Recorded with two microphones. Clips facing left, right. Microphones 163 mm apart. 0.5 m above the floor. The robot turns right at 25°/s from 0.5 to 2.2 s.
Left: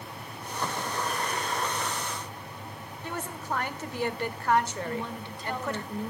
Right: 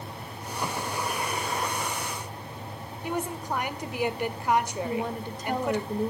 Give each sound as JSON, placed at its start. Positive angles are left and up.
{"t": 3.0, "sound": "a woman speaking", "side_deg": -15, "distance_m": 1.7}
{"t": 4.8, "sound": "a woman speaking", "side_deg": -40, "distance_m": 1.5}